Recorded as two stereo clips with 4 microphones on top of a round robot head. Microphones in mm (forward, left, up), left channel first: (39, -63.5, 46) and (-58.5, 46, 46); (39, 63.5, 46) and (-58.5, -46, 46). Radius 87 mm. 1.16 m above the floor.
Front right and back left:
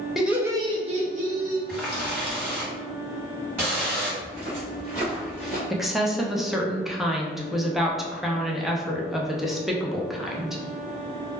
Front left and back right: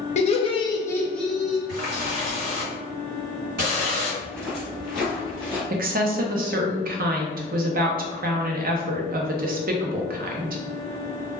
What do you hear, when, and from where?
0.2 s laughter: 45° left, 0.7 m; by 1.6 s 145° left, 0.9 m
1.7 s a running tap: 155° right, 1.4 m
4.2 s footsteps: 135° left, 1.4 m; by 5.6 s 25° right, 1.2 m
5.7 s a woman speaking: 140° right, 0.6 m